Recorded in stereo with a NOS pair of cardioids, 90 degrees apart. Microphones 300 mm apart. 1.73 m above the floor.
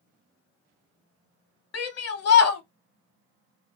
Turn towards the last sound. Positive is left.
turn(degrees=55)